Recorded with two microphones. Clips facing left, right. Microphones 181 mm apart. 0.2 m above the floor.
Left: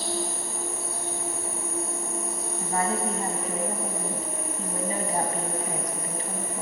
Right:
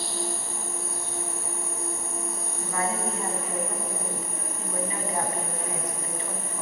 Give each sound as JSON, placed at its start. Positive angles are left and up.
{"t": 0.0, "sound": "an insect", "side_deg": 70, "distance_m": 5.0}
{"t": 2.6, "sound": "a woman speaking", "side_deg": 40, "distance_m": 1.4}